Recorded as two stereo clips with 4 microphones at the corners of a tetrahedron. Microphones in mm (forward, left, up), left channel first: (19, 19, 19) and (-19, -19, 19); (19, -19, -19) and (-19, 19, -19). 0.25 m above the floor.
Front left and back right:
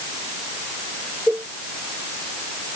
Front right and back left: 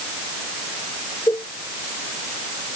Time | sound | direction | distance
1.3 | a cowbell | 65° right | ?